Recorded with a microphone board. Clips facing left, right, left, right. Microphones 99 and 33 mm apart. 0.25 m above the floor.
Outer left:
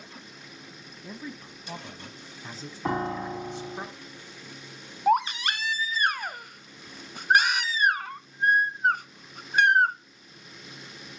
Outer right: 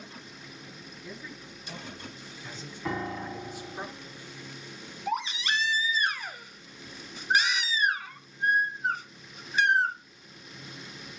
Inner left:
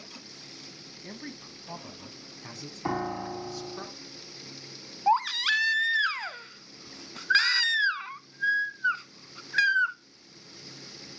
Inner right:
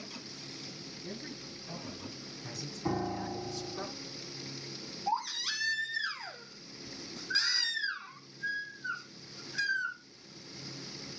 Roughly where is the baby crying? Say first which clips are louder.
Outer left 8 dB, inner left 10 dB; left.